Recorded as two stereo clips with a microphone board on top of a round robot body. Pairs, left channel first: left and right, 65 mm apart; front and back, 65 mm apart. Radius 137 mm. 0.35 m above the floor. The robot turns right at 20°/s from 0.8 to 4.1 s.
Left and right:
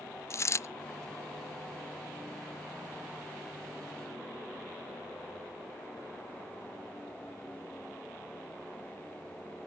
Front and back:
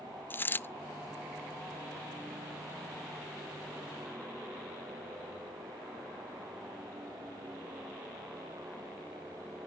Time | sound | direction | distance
0.3 | a dropped coin | 55° left | 0.5 m